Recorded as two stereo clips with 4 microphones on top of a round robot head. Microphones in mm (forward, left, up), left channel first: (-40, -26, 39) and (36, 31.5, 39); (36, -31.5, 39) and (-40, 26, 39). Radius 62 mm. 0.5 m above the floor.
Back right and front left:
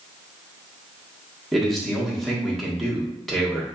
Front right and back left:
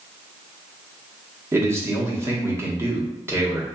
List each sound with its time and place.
1.5 s a man speaking: 130° left, 1.2 m